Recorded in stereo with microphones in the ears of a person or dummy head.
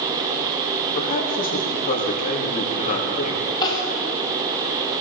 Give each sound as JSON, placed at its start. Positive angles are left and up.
{"t": 0.9, "sound": "a man speaking", "side_deg": 40, "distance_m": 2.5}
{"t": 3.6, "sound": "crying", "side_deg": 25, "distance_m": 1.9}